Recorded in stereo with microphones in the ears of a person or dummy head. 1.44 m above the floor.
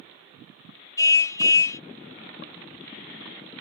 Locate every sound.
1.0 s a car horn: 20° left (ahead or behind)